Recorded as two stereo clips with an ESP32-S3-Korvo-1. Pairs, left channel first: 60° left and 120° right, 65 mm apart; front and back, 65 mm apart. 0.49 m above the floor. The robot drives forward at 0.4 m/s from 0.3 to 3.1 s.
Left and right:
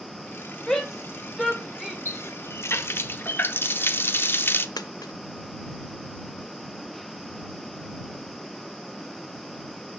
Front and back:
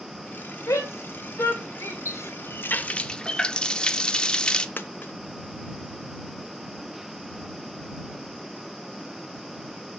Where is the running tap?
25° left, 0.7 m; by 4.7 s 65° left, 0.5 m.